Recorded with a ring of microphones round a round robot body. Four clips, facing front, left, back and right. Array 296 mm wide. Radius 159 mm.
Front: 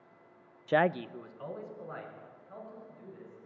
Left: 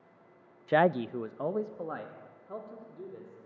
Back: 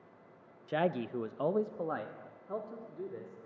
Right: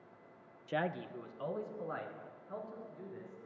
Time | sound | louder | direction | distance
0.7 | a man speaking | left 12 dB, front 4 dB | 45° left | 0.5 m